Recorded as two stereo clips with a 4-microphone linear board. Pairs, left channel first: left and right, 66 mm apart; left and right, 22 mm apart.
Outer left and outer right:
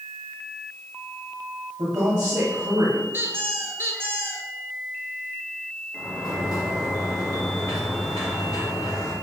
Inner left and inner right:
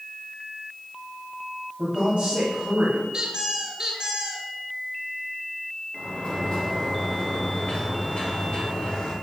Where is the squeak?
35° right (ahead or behind), 1.3 m.